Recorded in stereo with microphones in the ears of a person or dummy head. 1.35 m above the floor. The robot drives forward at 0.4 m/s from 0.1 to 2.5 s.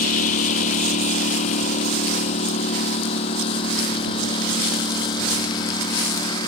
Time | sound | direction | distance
0.0 | a lawn mower | 50° left (ahead or behind) | ?